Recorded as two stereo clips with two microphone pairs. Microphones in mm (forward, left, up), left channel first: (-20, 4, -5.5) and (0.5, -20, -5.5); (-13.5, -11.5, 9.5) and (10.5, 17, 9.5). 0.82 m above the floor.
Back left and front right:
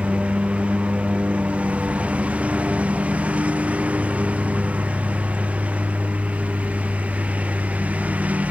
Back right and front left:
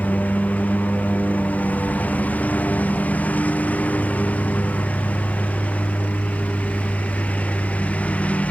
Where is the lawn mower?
90° right; by 8.5 s 80° right.